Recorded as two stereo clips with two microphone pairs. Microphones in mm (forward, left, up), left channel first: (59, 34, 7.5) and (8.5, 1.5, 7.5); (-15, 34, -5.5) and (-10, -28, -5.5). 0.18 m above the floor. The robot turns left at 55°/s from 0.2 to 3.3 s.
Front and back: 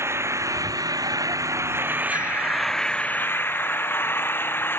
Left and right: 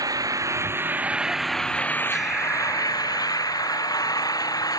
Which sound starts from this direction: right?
An engine running, at 0.0 s.